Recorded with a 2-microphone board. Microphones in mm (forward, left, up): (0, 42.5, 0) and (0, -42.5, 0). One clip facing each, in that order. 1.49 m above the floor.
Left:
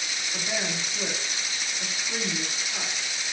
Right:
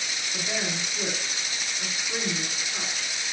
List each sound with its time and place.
0.3 s a woman speaking: 15° left (ahead or behind), 2.5 m